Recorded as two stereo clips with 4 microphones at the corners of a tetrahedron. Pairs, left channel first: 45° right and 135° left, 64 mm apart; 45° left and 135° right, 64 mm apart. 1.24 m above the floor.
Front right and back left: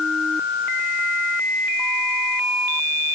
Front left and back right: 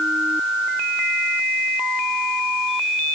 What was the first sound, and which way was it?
Only background noise.